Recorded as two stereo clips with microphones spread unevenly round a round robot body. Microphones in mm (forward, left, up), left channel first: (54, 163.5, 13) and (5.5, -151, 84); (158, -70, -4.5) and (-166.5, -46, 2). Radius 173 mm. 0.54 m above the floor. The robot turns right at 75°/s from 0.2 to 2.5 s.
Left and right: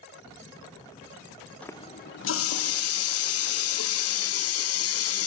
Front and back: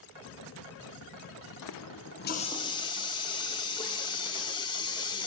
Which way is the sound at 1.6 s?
5° left.